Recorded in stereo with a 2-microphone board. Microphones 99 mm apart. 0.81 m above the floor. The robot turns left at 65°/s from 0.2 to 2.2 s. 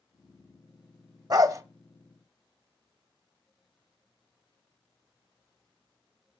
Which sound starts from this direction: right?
A dog barking, at 1.3 s.